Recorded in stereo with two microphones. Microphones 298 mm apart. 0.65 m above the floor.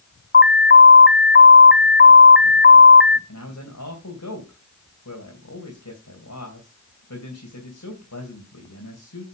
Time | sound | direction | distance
0.3 | an alarm | 40° left (ahead or behind) | 0.6 m
3.3 | a man speaking | 75° left (ahead or behind) | 3 m